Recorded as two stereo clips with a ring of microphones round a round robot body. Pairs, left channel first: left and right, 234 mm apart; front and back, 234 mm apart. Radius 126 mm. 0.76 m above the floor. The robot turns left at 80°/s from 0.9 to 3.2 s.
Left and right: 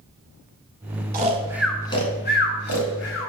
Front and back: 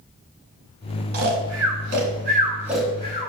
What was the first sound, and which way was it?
Snoring, 140° right.